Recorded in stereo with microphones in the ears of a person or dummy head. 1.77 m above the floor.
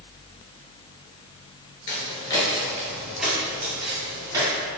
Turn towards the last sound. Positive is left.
turn(degrees=-20)  # may be behind; listen again after turning